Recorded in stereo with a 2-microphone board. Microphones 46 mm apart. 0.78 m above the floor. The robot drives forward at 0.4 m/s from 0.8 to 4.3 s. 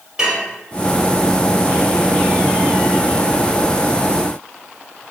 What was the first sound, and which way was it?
Dishes clattering, 20° right (ahead or behind).